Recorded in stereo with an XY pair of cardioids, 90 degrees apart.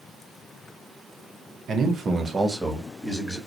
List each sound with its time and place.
1.7 s a man speaking: 65° right, 0.7 m; by 3.4 s 15° left, 1.0 m